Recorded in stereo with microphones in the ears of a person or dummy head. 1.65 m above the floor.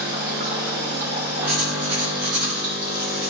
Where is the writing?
55° right (ahead or behind), 1.8 m.